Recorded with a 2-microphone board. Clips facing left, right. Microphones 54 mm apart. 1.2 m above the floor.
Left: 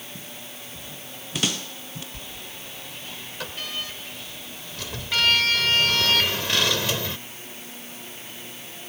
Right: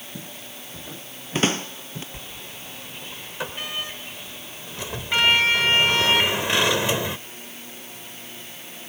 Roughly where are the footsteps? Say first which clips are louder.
Right 1 dB; right.